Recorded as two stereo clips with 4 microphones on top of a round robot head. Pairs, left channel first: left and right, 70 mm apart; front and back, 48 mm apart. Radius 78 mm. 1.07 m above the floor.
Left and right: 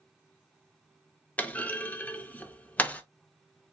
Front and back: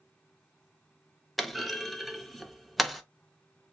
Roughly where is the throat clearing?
No throat clearing in this recording.